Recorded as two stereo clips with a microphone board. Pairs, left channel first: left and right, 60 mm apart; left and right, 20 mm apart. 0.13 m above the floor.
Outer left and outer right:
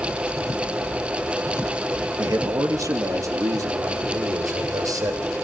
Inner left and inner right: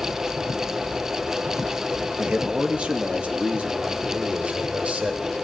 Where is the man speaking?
60° right (ahead or behind), 3 m; by 5.3 s 70° right (ahead or behind), 5.5 m.